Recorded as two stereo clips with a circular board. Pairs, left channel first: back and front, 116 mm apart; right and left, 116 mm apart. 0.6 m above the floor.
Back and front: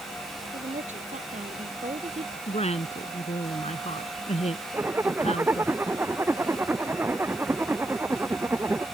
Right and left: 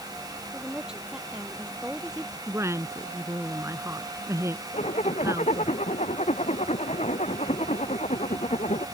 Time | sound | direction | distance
0.5 | a woman speaking | 5° left | ?
2.5 | a woman speaking | 155° left | ?
4.7 | a zipper | 70° right | ?